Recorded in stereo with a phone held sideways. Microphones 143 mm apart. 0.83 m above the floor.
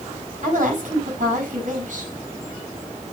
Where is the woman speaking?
60° right (ahead or behind), 7 m.